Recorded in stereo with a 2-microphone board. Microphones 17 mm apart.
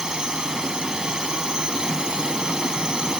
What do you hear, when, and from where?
0.0 s a drone: 40° right (ahead or behind)